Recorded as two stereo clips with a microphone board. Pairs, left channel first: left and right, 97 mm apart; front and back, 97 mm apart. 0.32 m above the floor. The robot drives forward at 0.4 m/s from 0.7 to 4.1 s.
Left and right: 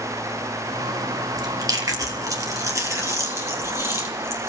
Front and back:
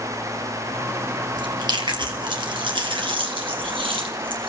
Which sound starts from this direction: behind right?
Chewing, at 1.4 s.